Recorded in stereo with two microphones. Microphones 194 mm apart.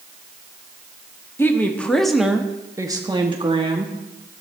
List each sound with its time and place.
1.4 s a woman speaking: 10° left (ahead or behind), 1.3 m; by 4.0 s 30° right (ahead or behind), 1.4 m